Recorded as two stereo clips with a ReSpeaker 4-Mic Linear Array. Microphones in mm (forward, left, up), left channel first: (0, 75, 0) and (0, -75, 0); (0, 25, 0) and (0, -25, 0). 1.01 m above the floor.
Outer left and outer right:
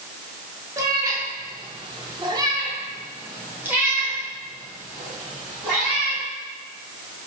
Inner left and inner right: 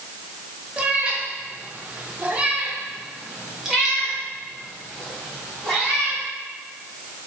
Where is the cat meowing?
20° right (ahead or behind), 1.0 m; by 6.2 s 5° right (ahead or behind), 3 m.